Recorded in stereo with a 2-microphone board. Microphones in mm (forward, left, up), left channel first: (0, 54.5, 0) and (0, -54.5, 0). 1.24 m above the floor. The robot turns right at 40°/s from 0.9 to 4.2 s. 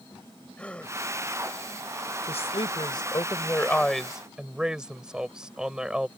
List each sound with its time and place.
0.6 s a gasp: 10° left (ahead or behind); by 1.0 s 5° left (ahead or behind)
2.3 s a woman speaking: 110° left; by 6.1 s 170° right